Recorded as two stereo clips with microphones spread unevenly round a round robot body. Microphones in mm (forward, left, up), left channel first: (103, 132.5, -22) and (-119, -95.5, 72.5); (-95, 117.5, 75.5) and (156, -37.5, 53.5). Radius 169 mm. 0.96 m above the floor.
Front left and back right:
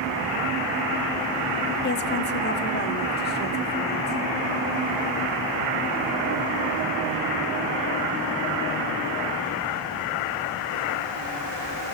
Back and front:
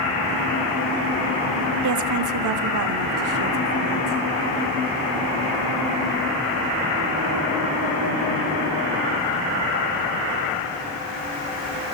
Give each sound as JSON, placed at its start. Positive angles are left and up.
{"t": 1.8, "sound": "a woman speaking", "azimuth_deg": -5, "distance_m": 0.8}